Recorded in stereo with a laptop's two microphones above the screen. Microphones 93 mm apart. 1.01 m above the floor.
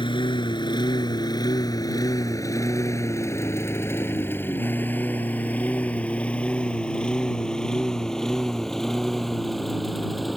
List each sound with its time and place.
0.0 s a lawn mower: 60° left (ahead or behind); by 10.4 s centre (ahead or behind)